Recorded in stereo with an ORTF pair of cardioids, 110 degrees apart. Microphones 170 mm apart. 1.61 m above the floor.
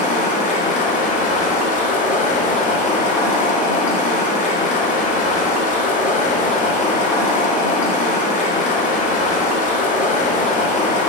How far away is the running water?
About 3.5 m.